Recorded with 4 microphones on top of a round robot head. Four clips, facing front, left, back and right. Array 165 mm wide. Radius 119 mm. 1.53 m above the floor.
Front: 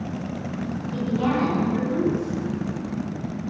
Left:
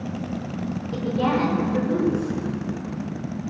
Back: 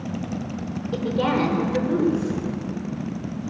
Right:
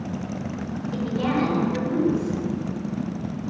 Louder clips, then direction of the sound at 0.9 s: Left 2 dB, back 1 dB; 170° left.